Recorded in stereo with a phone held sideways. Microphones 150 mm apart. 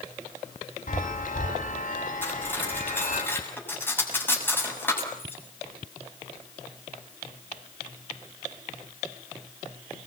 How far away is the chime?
About 7.5 m.